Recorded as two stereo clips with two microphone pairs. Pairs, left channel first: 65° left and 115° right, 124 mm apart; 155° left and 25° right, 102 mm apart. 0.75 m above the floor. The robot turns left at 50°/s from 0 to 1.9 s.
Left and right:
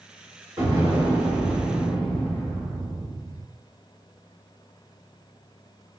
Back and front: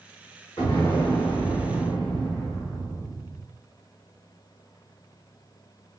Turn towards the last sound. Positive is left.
turn(degrees=135)